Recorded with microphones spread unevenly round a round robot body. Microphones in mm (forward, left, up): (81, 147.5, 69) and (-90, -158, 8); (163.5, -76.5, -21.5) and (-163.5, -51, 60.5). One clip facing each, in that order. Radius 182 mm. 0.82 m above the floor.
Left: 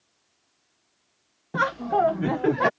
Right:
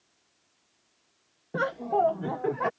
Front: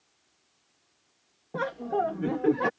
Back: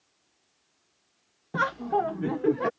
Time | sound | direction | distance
1.5 | laughter | 125° left | ?